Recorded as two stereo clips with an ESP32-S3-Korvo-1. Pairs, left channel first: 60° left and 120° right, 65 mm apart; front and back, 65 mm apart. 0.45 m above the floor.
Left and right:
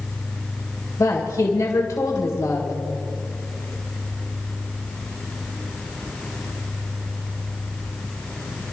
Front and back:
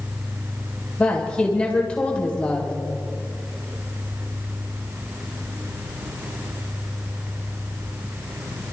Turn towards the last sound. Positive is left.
turn(degrees=70)